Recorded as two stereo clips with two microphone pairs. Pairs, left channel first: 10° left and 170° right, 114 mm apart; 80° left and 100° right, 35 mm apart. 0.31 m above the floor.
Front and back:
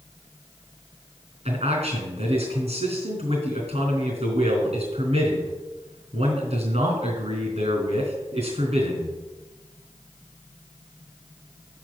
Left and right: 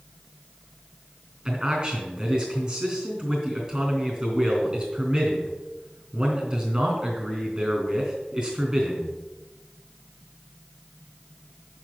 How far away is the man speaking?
About 3.5 m.